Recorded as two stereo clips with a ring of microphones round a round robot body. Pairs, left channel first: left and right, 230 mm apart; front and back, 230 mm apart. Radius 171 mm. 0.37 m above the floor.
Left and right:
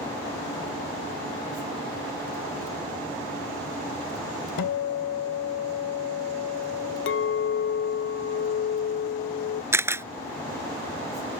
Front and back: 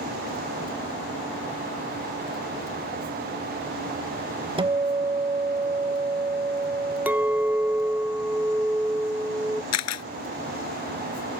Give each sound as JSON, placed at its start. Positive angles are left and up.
{"t": 4.6, "sound": "a guitar", "azimuth_deg": 110}
{"t": 7.1, "sound": "a clink", "azimuth_deg": 95}
{"t": 9.7, "sound": "a camera shutter", "azimuth_deg": -10}